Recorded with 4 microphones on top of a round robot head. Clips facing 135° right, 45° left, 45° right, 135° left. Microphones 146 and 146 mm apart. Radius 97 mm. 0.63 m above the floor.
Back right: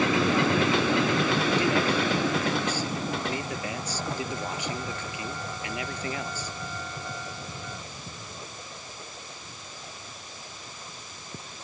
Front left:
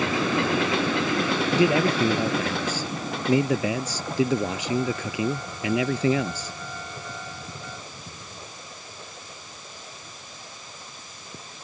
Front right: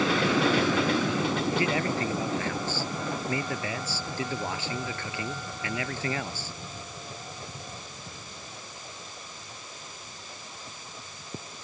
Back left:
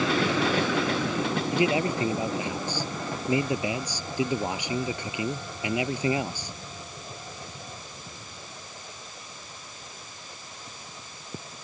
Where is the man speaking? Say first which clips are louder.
Front left 4 dB, back left 3 dB; 60° left.